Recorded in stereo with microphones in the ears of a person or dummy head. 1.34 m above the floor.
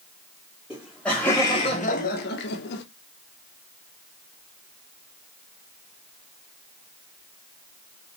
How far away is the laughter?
About 0.8 m.